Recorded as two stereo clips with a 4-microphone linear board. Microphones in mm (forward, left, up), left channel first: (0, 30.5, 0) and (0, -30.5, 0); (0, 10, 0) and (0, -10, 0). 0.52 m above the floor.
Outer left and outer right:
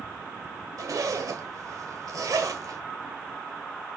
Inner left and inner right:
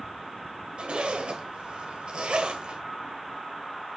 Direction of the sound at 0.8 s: 70° right (ahead or behind).